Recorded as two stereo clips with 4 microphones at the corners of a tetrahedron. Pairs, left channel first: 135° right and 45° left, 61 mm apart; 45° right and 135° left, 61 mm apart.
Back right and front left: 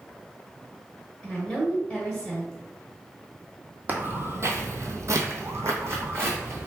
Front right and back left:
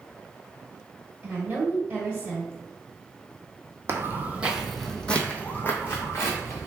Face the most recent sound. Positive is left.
turn(degrees=-5)